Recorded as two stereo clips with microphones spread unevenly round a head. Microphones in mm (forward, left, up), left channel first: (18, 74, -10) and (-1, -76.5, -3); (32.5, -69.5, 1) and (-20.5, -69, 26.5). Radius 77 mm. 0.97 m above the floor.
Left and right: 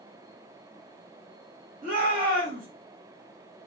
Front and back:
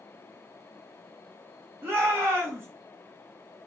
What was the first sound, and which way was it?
A shout, 120° right.